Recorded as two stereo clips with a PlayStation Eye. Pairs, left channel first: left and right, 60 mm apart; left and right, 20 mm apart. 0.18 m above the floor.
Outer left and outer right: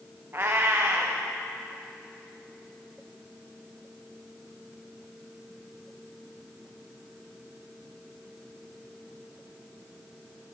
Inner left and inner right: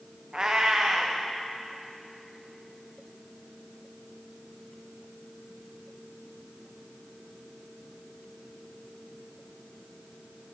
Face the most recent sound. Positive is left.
turn(degrees=-35)  # may be behind; listen again after turning